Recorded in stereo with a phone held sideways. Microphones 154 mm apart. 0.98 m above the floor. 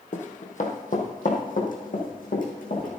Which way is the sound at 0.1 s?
55° left (ahead or behind).